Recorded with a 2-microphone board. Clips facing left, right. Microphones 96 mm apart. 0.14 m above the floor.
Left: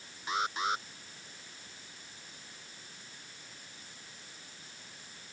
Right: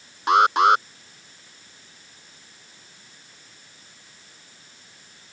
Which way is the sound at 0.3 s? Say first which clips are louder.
Right 17 dB; 75° right (ahead or behind).